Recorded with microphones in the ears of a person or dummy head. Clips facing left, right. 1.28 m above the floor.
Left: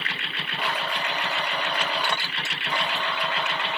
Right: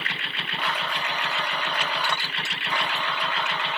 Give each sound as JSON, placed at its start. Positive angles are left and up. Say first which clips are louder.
{"t": 0.6, "sound": "a blender", "louder": "left 1 dB", "side_deg": 15, "distance_m": 0.8}